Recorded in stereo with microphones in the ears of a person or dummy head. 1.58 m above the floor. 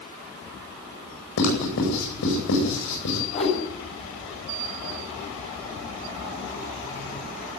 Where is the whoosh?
40° left (ahead or behind), 7.5 m.